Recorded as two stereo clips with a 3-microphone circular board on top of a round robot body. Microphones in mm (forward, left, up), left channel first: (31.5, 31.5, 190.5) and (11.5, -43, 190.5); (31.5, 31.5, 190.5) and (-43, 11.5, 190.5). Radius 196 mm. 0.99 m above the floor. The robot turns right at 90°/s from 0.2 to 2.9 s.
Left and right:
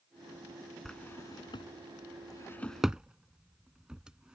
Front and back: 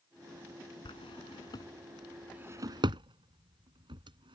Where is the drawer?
10° right; by 4.3 s 175° left.